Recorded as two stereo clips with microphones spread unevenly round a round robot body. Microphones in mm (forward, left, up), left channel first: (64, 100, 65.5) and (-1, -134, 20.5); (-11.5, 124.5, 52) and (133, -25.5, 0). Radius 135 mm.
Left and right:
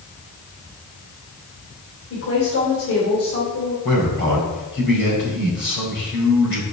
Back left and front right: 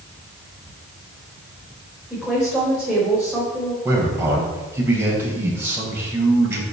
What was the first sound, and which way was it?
A woman speaking, 40° left.